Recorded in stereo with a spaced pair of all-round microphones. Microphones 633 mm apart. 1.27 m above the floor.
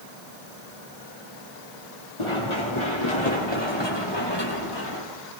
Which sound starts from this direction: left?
Running footsteps, at 2.2 s.